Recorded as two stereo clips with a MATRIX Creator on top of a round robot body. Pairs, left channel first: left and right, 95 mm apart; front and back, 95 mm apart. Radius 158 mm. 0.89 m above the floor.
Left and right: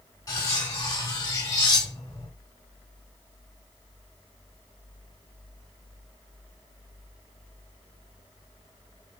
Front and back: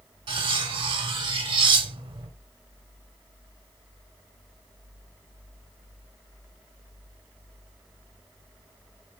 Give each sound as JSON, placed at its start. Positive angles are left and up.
{"t": 0.3, "sound": "cutlery clinking", "azimuth_deg": 145, "distance_m": 1.0}